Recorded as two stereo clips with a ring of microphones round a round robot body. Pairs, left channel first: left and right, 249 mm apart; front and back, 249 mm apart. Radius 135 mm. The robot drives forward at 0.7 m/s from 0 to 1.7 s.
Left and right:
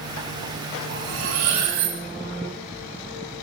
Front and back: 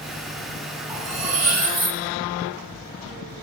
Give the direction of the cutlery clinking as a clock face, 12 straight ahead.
4 o'clock.